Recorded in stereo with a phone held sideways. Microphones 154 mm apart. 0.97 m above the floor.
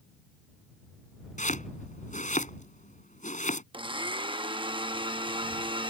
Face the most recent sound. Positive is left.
turn(degrees=-35)  # may be behind; listen again after turning